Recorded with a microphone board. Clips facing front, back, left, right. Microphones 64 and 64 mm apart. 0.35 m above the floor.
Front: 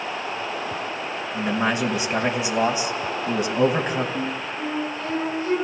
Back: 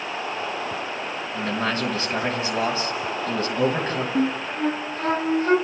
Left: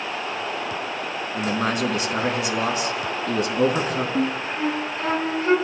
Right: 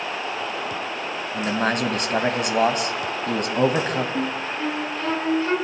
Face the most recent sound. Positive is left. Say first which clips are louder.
# back 4 dB, left 2 dB
turn(degrees=170)